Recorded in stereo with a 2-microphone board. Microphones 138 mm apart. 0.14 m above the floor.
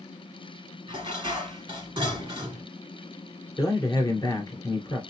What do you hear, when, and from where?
0.9 s dishes clattering: 35° right (ahead or behind), 1.1 m
3.6 s a man speaking: 25° left (ahead or behind), 1.8 m